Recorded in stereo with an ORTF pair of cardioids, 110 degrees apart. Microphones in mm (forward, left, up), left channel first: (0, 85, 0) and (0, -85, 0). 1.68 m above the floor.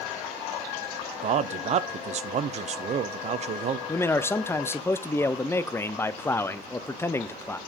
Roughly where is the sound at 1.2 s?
Ahead right.